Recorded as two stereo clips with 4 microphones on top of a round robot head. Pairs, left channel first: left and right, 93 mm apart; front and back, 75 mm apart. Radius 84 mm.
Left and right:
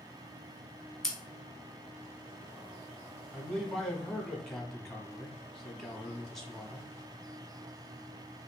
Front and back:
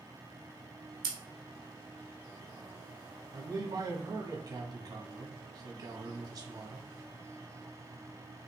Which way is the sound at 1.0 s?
175° left.